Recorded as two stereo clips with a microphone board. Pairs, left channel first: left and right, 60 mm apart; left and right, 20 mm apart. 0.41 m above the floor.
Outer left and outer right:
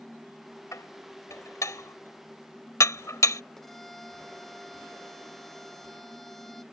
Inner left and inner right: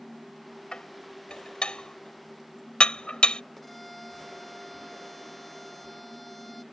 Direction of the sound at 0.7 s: 60° left (ahead or behind).